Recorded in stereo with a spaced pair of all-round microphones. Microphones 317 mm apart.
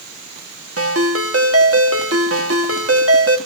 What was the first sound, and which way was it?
A ringtone, 45° right (ahead or behind).